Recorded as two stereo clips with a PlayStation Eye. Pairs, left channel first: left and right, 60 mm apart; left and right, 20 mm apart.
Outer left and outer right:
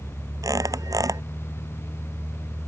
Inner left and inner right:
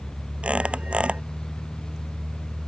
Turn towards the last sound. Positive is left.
turn(degrees=-75)  # may be behind; listen again after turning